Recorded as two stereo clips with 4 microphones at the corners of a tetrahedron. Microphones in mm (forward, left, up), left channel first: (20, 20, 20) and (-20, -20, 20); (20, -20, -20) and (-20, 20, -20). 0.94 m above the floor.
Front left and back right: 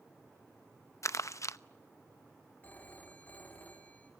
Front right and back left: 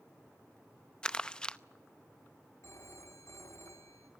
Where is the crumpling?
30° left, 0.7 m.